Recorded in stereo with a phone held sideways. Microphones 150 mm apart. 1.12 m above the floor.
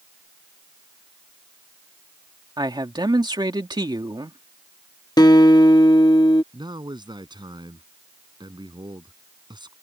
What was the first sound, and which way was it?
A man speaking, 30° right (ahead or behind).